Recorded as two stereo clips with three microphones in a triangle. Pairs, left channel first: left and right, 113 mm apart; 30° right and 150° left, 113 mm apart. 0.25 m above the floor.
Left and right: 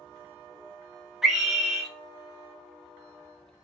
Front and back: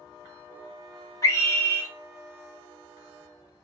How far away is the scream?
About 1.1 m.